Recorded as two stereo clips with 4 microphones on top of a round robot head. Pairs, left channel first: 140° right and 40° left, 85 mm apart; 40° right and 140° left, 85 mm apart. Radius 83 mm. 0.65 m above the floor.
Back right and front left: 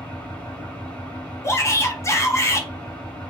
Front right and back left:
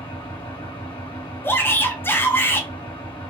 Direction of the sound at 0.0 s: 65° right.